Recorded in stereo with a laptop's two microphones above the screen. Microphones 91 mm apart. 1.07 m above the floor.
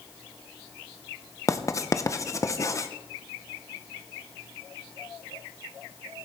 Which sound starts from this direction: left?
Writing, at 1.5 s.